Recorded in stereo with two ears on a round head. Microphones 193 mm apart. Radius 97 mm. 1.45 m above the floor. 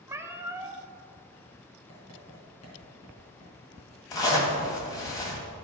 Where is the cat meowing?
10° right (ahead or behind), 0.6 m.